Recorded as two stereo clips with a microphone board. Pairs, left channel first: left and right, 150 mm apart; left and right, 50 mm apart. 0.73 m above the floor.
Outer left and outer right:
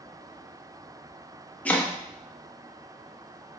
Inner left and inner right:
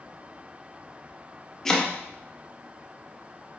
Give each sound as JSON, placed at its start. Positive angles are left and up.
{"t": 1.6, "sound": "chopping", "side_deg": 10, "distance_m": 0.6}